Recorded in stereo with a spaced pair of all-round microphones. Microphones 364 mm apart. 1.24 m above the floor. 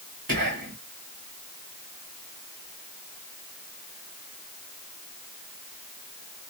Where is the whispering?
70° right (ahead or behind), 1.5 m.